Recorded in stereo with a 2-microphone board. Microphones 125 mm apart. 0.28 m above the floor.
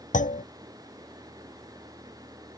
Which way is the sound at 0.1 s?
75° left (ahead or behind).